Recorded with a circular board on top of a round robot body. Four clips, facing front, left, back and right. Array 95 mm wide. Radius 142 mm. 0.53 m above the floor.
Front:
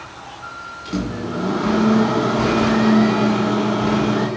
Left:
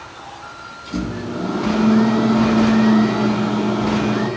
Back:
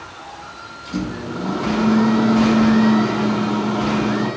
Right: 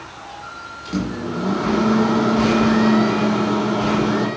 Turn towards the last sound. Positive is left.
turn(degrees=-40)